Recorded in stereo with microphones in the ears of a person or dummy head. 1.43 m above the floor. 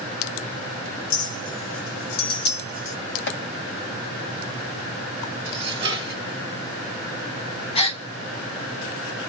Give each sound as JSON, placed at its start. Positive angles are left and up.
{"t": 1.1, "sound": "a clink", "side_deg": 55, "distance_m": 0.8}
{"t": 3.3, "sound": "chopping", "side_deg": 55, "distance_m": 2.0}
{"t": 5.5, "sound": "dishes clattering", "side_deg": -25, "distance_m": 2.0}
{"t": 7.8, "sound": "a gasp", "side_deg": 30, "distance_m": 1.0}